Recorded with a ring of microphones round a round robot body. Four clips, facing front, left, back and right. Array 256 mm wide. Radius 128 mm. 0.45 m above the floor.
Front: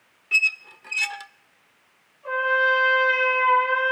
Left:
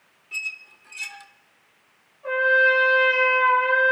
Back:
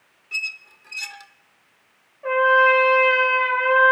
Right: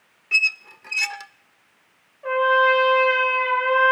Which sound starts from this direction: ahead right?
A squeak, at 0.3 s.